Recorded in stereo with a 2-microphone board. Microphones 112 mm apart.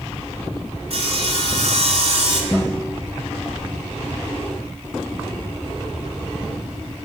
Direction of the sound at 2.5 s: Centre (ahead or behind).